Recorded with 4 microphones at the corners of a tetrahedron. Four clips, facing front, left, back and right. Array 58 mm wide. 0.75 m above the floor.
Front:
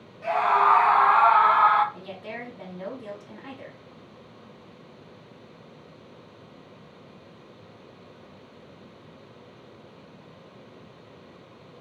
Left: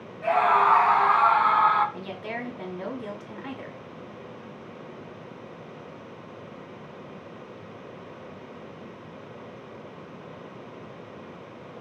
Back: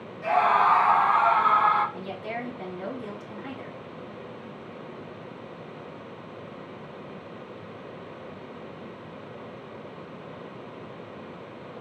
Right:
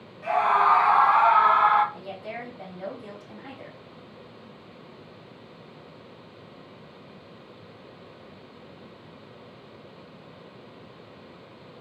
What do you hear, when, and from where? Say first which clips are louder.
0.2 s a scream: left 1 dB, even; 95° left, 1.3 m; by 1.8 s 25° right, 2 m
1.9 s a woman speaking: left 2 dB, back 4 dB; 90° left, 2.5 m